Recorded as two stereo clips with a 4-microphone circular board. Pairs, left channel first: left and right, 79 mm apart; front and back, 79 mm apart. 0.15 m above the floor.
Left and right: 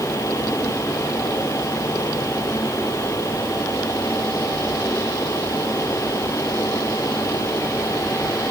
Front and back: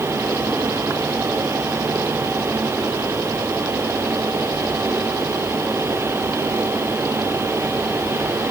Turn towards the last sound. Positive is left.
No sound to turn to.